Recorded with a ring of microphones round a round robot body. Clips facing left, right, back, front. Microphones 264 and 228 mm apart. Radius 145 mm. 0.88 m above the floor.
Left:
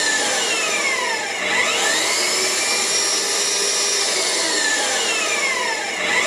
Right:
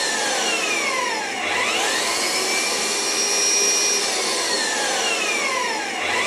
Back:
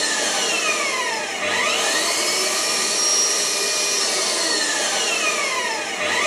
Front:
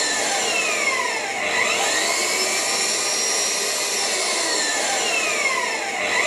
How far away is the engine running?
About 3.5 m.